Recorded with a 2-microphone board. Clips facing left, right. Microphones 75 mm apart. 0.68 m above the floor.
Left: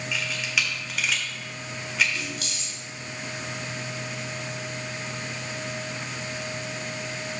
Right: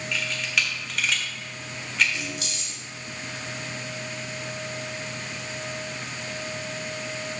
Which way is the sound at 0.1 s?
5° left (ahead or behind).